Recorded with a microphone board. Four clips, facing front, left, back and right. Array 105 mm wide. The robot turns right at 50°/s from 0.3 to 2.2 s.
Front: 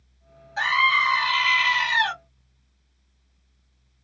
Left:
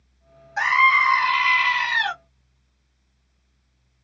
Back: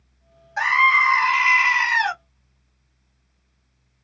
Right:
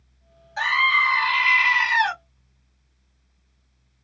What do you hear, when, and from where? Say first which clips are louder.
0.6 s a scream: left 4 dB, back 4 dB; 130° left, 0.9 m; by 2.1 s 150° right, 0.9 m